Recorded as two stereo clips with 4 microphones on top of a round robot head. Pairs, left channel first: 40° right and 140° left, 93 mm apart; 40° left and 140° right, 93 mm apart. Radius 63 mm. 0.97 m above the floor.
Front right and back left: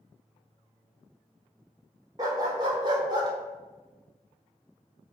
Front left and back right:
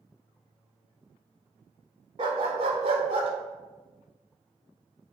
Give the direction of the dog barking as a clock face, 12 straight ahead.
6 o'clock.